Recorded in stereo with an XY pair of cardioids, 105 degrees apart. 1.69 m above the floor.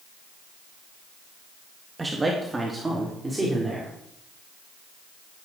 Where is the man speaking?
20° right, 2.5 m; by 3.9 s 15° right, 5 m.